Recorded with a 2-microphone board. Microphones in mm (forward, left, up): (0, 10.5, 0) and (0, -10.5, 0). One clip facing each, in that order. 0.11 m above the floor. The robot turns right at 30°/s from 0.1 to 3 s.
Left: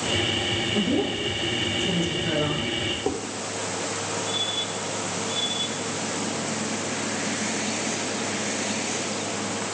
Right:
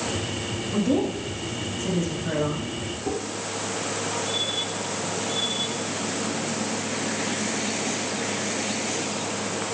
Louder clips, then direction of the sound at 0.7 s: Right 5 dB; 40° right.